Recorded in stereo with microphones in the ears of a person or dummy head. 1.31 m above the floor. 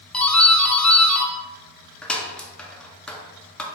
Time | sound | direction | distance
0.1 | a doorbell | 5° left (ahead or behind) | 0.6 m